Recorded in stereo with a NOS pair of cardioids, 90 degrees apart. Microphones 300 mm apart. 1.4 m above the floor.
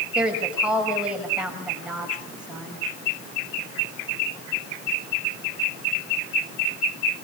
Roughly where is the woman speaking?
Ahead.